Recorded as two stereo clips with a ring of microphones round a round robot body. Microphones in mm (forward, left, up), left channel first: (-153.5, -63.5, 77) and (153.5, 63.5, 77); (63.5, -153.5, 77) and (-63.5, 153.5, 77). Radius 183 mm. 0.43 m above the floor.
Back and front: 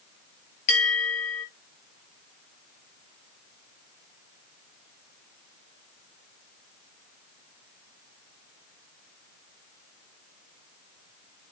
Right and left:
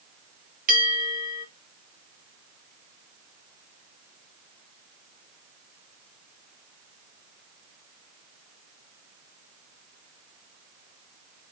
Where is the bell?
Straight behind, 3.5 m.